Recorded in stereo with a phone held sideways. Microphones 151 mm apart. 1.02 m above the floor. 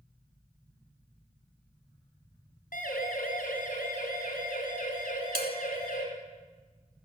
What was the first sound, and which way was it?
A siren, 70° left (ahead or behind).